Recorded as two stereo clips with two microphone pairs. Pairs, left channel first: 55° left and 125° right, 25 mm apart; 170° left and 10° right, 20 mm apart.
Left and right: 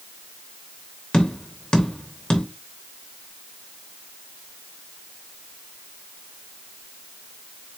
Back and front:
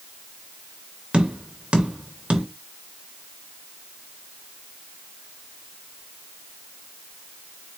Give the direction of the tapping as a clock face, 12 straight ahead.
12 o'clock.